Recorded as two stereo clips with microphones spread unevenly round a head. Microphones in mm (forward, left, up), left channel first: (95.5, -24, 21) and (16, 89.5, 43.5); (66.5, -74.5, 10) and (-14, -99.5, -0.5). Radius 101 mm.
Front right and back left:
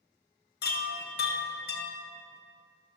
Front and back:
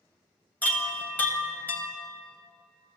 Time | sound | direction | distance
0.6 | a chime | 55° right | 1.5 m